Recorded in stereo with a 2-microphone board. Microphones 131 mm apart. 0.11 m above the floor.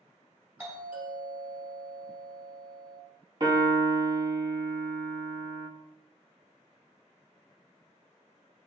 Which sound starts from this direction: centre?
A doorbell, at 0.6 s.